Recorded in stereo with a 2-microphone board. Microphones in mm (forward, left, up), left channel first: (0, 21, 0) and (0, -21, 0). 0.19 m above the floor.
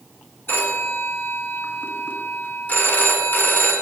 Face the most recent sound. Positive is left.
turn(degrees=50)  # may be behind; listen again after turning